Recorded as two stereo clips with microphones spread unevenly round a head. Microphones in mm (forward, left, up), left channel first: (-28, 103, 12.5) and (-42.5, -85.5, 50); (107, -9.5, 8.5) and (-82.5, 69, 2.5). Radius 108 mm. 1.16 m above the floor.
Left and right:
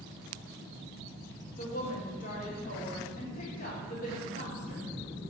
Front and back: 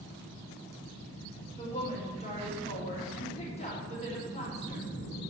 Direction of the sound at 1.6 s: 35° left.